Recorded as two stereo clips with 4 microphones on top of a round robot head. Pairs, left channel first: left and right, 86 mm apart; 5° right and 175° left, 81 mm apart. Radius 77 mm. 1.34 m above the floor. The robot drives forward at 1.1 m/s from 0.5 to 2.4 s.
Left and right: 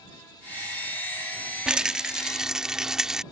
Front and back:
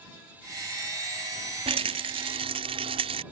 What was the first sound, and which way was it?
A rattle, 170° right.